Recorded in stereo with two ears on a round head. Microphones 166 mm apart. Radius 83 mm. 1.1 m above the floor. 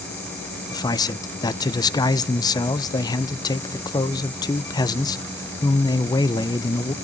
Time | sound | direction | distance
0.7 | a man speaking | 20° left (ahead or behind) | 0.6 m